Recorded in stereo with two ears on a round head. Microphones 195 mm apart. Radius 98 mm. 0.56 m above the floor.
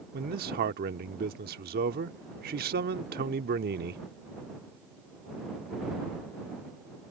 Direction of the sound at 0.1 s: 45° right (ahead or behind).